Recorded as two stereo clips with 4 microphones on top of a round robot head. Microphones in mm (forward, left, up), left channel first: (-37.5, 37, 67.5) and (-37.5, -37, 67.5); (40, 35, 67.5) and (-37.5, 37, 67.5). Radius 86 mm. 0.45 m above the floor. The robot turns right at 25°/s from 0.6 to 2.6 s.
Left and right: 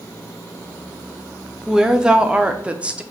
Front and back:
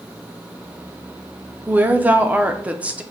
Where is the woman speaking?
160° right, 0.7 m; by 3.0 s 140° right, 0.7 m.